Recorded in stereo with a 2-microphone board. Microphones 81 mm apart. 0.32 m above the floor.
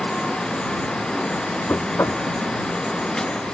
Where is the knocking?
30° left (ahead or behind).